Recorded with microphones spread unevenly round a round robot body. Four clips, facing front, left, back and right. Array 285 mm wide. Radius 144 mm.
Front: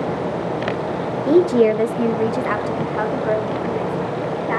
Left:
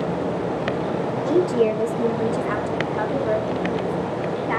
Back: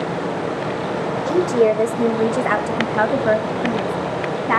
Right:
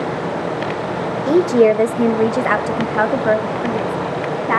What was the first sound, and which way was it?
A woman speaking, 65° right.